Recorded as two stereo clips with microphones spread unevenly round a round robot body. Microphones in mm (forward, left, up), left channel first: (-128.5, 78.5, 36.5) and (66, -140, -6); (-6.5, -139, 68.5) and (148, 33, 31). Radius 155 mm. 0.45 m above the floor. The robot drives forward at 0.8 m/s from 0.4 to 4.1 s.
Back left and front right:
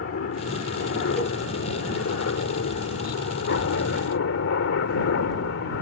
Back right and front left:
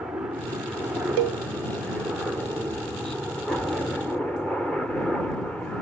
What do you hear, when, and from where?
0.0 s a helicopter: 120° left; by 5.8 s 135° left
1.2 s a cowbell: 40° left; by 1.4 s 55° left